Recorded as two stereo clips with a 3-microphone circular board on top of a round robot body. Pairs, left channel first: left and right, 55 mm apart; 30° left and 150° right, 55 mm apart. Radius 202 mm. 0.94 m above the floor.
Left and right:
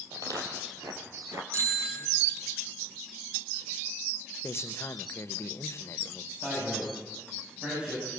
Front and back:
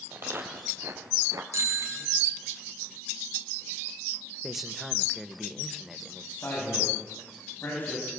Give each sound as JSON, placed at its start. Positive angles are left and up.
{"t": 0.1, "sound": "footsteps", "azimuth_deg": -100, "distance_m": 2.5}
{"t": 1.5, "sound": "a bicycle bell", "azimuth_deg": -120, "distance_m": 7.0}
{"t": 4.4, "sound": "a man speaking", "azimuth_deg": 125, "distance_m": 1.3}
{"t": 6.3, "sound": "a man speaking", "azimuth_deg": -25, "distance_m": 9.5}